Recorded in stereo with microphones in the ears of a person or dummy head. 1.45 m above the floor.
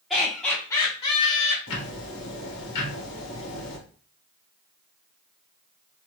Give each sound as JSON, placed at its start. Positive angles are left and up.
{"t": 0.1, "sound": "laughter", "side_deg": 0, "distance_m": 1.5}
{"t": 1.7, "sound": "ticking", "side_deg": 75, "distance_m": 1.2}